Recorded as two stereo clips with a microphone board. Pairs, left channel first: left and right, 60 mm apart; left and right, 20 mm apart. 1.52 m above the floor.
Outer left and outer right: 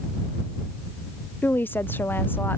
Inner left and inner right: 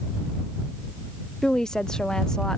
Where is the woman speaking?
35° left (ahead or behind).